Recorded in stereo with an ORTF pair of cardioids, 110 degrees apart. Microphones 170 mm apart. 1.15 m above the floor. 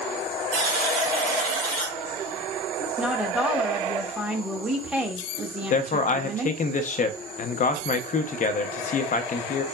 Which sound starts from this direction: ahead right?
A buzzer, at 0.5 s.